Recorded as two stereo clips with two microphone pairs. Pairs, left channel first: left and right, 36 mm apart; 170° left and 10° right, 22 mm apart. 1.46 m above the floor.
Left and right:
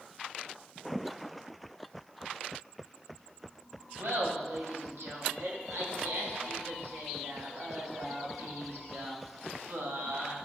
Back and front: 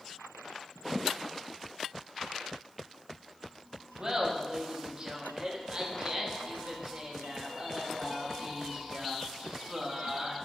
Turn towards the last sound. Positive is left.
turn(degrees=-70)